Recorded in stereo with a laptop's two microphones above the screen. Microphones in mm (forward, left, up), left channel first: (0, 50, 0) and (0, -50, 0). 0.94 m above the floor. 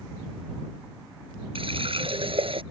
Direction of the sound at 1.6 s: 65° right (ahead or behind).